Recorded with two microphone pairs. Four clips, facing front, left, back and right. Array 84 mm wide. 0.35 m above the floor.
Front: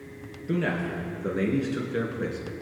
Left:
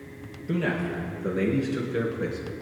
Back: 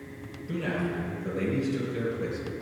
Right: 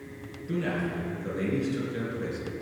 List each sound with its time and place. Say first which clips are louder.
0.5 s a man speaking: left 3 dB, front 3 dB; 35° left, 5 m